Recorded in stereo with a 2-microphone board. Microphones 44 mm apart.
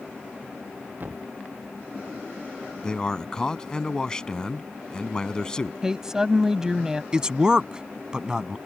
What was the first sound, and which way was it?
A thud, 45° right (ahead or behind).